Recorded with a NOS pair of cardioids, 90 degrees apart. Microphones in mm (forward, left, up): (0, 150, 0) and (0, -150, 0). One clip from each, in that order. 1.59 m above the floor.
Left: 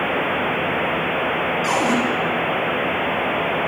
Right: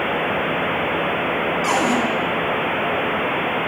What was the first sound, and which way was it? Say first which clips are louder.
A cupboard door: right 1 dB; 10° right.